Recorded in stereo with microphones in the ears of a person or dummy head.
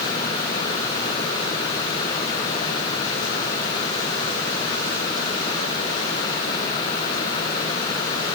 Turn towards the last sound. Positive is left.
No sound to turn to.